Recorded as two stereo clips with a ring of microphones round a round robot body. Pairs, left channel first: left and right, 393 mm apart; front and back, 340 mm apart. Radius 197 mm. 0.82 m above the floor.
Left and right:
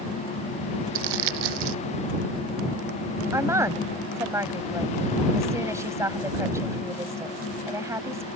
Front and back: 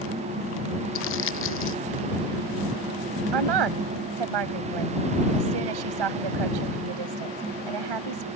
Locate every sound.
0.9 s crumpling: 60° right
3.3 s a woman speaking: 175° right